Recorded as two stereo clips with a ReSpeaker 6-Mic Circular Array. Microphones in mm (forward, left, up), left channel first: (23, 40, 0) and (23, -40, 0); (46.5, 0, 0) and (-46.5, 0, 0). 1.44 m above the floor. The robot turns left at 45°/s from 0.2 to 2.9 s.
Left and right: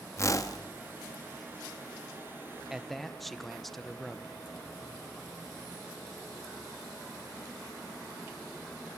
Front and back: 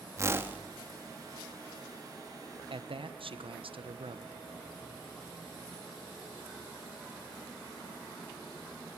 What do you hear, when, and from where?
0.2 s a whoosh: 130° left, 1.2 m; by 0.6 s 110° left, 1.2 m
2.7 s a man speaking: 175° right, 1.1 m; by 4.3 s straight behind, 1.1 m